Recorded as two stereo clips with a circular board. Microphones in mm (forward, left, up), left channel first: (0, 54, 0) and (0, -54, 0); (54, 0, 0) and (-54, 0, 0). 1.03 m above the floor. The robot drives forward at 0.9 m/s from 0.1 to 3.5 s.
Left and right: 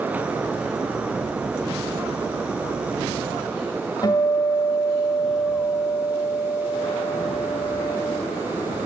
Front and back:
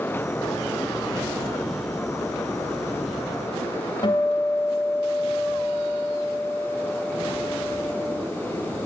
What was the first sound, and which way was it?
A guitar, 40° left.